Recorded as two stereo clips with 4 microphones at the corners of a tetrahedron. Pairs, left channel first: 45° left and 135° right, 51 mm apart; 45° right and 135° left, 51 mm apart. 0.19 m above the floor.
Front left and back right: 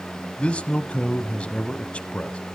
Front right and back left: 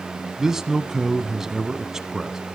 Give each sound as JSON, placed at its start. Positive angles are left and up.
{"t": 0.4, "sound": "a man speaking", "azimuth_deg": 70, "distance_m": 1.1}